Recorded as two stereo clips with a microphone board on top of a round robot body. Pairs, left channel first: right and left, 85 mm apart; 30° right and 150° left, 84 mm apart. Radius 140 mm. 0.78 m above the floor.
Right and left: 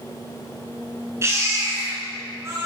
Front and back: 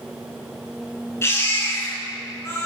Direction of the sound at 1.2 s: 30° left.